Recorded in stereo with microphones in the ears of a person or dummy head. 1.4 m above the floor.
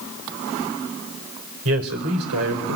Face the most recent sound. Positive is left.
turn(degrees=-85)